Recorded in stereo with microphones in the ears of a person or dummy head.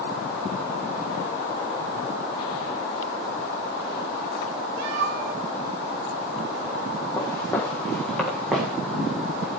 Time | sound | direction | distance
4.8 | a cat meowing | 60° right (ahead or behind) | 4 m
7.2 | footsteps | 20° left (ahead or behind) | 3.5 m